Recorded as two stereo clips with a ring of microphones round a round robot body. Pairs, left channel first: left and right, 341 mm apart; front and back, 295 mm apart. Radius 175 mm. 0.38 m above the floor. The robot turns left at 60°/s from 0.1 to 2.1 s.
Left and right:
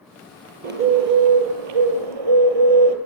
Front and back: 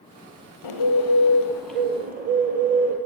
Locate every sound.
0.6 s a bird: 25° right, 2 m; by 3.0 s 110° right, 2 m